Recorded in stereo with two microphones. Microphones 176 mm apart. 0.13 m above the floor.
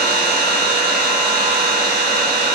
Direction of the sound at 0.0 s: 80° right.